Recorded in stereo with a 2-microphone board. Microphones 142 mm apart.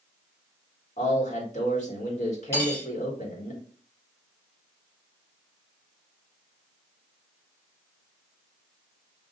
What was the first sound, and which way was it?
A man speaking, 55° left (ahead or behind).